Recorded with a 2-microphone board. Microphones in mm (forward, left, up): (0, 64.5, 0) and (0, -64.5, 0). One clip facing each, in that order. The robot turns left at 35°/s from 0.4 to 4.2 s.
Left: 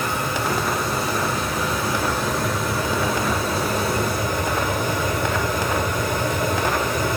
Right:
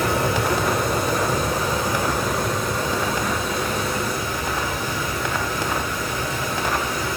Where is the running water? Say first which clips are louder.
Right 3 dB; 105° right, 2 m; by 7.2 s 120° left, 2 m.